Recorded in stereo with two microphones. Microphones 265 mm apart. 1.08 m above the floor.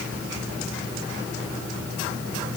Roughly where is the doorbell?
No doorbell in this recording.